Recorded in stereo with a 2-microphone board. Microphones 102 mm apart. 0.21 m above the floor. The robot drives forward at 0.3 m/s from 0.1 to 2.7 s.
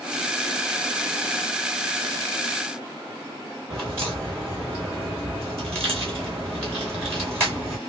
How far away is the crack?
About 3 m.